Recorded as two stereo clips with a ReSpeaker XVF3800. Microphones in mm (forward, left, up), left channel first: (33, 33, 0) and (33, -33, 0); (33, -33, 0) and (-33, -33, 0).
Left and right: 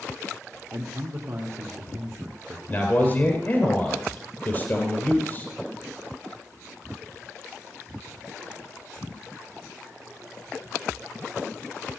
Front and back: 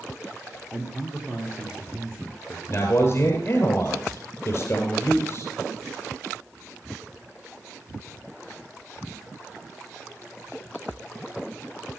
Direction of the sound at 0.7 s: 110° right.